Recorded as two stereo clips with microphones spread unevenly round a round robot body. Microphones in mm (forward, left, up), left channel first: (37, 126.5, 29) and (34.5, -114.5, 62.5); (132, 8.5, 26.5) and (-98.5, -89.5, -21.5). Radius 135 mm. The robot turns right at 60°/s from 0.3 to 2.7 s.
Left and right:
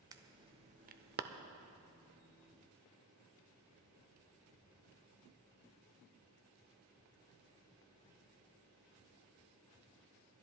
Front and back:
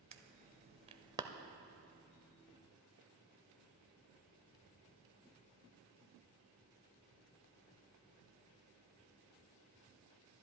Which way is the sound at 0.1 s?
165° right.